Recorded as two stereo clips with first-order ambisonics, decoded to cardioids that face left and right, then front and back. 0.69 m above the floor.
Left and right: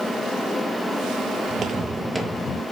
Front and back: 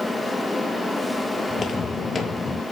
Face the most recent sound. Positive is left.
turn(degrees=70)